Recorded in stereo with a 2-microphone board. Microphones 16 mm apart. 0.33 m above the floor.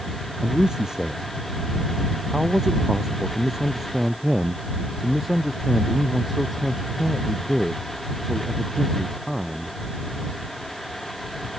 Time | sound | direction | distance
0.4 | a man speaking | 45° right (ahead or behind) | ?